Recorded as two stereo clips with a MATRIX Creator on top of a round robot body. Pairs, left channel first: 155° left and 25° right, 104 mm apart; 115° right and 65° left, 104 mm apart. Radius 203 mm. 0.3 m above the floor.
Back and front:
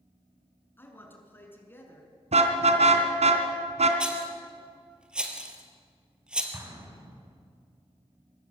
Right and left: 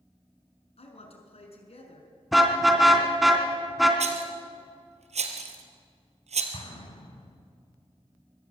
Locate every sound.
0.8 s a man speaking: 130° right, 6 m
2.3 s a car horn: 25° right, 2.5 m
4.0 s a rattle: 60° left, 2.5 m
6.5 s an explosion: 85° right, 4 m